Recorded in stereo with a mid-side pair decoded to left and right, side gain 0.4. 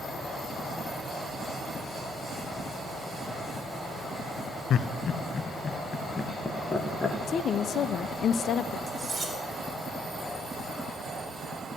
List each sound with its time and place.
4.7 s laughter: 70° left, 0.9 m; by 7.2 s 25° left, 2.5 m
7.3 s a woman speaking: 65° left, 0.6 m
8.9 s cutlery clinking: 25° right, 3.5 m